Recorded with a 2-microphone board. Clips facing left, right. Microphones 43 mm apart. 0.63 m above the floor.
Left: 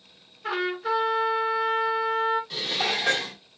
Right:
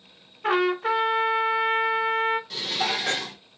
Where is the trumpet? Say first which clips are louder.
Right 5 dB; 50° right (ahead or behind), 0.8 m.